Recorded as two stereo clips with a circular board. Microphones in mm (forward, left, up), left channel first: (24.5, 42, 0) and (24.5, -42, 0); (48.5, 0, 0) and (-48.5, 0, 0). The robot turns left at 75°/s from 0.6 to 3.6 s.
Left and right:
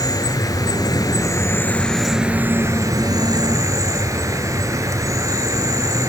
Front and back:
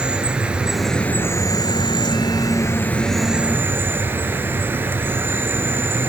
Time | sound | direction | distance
0.0 | an insect | 105° left | 0.9 m